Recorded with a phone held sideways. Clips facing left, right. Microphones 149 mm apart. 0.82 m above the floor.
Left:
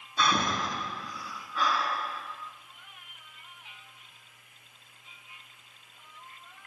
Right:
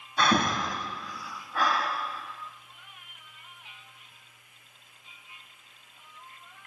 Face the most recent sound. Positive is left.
turn(degrees=-75)  # may be behind; listen again after turning